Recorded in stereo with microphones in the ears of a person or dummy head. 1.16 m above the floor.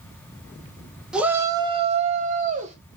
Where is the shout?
5° right (ahead or behind), 0.6 m; by 2.8 s 35° right (ahead or behind), 1.0 m.